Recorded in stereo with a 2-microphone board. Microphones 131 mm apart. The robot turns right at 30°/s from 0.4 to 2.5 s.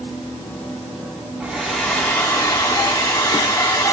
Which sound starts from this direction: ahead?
A hair dryer, at 1.4 s.